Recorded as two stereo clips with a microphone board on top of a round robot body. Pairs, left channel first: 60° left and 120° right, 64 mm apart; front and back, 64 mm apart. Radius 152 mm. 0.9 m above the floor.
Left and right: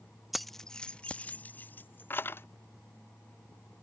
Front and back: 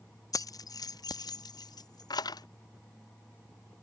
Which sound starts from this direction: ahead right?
Keys jangling, at 0.3 s.